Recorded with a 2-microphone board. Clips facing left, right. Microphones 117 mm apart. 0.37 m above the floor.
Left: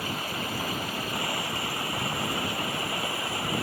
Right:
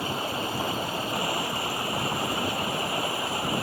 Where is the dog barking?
I don't hear a dog barking.